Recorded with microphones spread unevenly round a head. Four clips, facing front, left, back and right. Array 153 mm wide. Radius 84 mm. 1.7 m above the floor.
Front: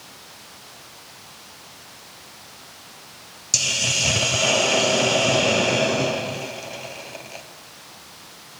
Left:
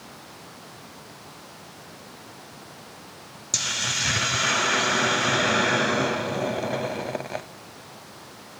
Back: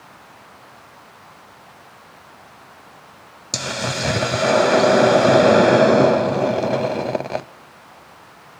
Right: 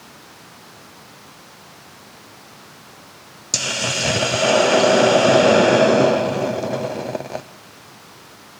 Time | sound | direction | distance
3.5 | a hiss | 155° right | 0.6 m